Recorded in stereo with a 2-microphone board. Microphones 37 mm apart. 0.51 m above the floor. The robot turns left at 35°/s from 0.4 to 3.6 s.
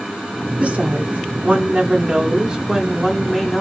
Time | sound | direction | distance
0.6 | a woman speaking | 75° right | 0.8 m